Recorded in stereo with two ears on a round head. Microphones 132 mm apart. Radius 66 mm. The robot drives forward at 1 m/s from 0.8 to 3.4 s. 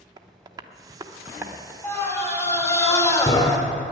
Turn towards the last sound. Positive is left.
turn(degrees=25)  # may be behind; listen again after turning